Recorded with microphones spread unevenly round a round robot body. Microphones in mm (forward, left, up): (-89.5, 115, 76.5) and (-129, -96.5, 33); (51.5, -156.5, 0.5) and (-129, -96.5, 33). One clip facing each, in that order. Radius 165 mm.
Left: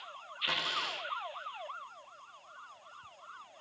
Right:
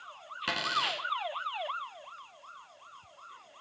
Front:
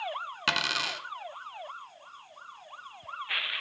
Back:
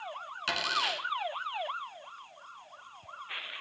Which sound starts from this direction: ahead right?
A dropped coin, at 0.5 s.